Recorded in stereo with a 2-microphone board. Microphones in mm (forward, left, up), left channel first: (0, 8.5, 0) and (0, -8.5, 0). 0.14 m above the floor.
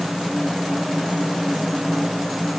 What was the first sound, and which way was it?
Only background noise.